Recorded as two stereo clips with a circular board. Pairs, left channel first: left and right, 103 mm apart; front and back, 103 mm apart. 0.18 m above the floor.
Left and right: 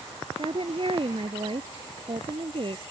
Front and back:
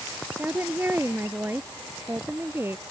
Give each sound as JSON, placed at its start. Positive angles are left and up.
{"t": 0.4, "sound": "a woman speaking", "azimuth_deg": -115}